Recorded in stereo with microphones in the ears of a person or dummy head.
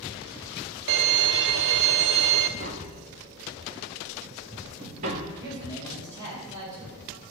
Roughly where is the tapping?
Right.